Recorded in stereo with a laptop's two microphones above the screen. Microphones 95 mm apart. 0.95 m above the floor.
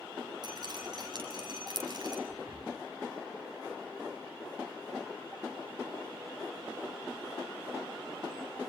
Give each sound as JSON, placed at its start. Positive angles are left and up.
{"t": 0.4, "sound": "dripping", "side_deg": -45, "distance_m": 6.5}
{"t": 2.3, "sound": "breathing", "side_deg": -45, "distance_m": 4.5}